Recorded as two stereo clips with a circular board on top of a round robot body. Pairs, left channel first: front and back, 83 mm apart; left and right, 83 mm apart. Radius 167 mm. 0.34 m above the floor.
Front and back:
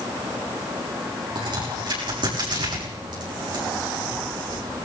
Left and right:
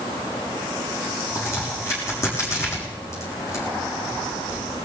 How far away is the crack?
About 6.5 m.